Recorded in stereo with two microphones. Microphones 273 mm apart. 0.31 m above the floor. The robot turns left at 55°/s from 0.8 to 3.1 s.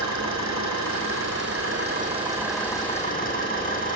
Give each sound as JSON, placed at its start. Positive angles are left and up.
{"t": 0.0, "sound": "an engine running", "azimuth_deg": -85, "distance_m": 5.0}